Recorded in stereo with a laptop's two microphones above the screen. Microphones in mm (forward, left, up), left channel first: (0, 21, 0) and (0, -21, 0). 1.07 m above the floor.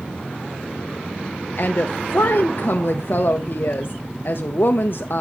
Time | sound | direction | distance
1.6 | a woman speaking | 55° left (ahead or behind) | 0.6 m